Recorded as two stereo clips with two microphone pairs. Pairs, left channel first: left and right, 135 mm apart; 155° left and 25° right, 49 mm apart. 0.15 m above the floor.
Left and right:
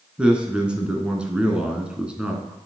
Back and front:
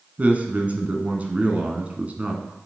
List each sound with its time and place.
0.2 s a man speaking: 20° right, 1.4 m